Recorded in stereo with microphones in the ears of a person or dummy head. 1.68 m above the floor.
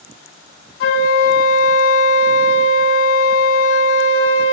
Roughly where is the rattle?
I don't hear a rattle.